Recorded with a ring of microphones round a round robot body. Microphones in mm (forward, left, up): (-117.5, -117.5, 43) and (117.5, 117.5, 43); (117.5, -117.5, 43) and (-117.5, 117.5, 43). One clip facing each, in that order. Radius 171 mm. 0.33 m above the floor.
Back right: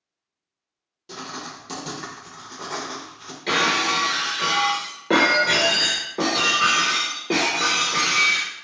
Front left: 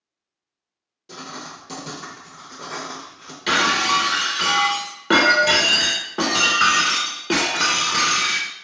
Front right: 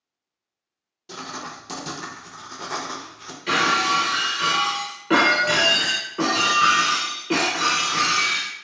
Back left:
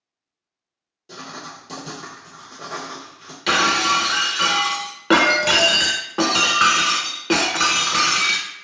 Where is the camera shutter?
I don't hear a camera shutter.